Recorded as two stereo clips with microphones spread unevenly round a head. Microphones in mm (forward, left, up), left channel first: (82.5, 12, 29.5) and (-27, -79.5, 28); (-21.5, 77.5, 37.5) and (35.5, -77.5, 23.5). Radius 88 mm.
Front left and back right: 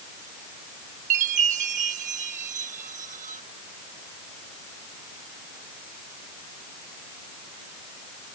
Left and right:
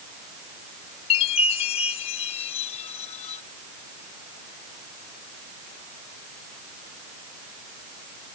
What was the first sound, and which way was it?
A chime, 170° left.